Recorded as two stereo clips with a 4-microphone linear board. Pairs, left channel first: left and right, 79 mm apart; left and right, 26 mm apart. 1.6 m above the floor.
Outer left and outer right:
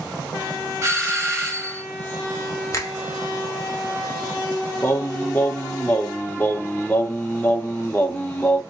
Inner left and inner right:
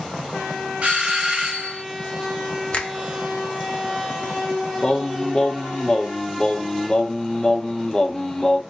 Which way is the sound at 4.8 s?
20° left (ahead or behind).